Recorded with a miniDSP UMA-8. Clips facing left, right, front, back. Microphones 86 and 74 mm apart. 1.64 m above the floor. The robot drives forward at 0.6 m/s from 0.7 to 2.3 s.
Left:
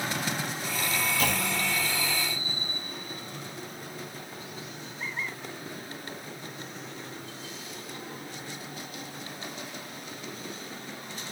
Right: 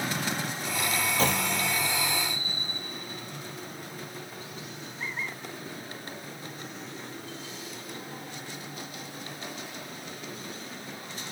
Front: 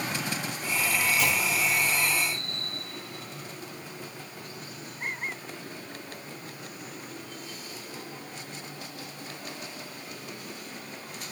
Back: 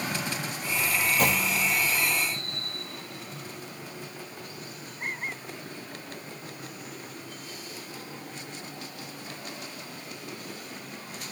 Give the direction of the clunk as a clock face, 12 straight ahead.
5 o'clock.